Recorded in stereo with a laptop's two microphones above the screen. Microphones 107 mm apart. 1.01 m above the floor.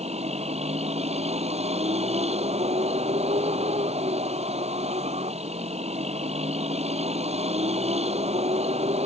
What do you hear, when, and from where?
0.0 s a vehicle: 80° right